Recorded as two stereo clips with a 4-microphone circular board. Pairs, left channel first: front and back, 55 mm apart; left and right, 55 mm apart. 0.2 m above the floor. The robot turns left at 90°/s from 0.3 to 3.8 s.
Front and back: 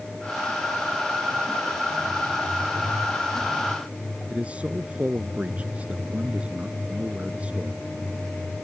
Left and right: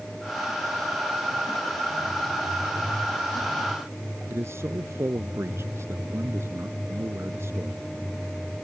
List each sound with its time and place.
4.3 s a man speaking: 115° right